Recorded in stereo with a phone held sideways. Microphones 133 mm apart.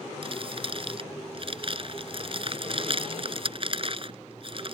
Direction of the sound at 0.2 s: 45° right (ahead or behind).